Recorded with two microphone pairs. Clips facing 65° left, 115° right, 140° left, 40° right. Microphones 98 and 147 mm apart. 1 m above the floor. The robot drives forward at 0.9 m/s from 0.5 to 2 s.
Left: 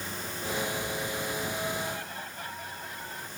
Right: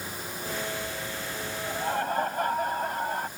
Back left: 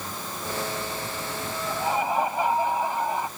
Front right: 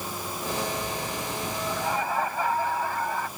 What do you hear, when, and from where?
1.7 s laughter: 145° right; by 3.3 s 150° right